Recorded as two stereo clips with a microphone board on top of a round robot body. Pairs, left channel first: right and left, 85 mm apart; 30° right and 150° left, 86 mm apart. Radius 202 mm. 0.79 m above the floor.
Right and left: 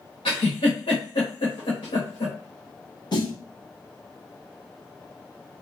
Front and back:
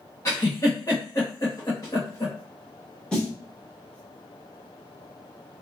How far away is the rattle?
I don't hear a rattle.